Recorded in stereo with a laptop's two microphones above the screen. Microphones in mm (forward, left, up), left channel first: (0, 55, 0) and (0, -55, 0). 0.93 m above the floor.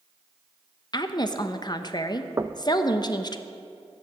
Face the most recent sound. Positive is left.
turn(degrees=-25)  # may be behind; listen again after turning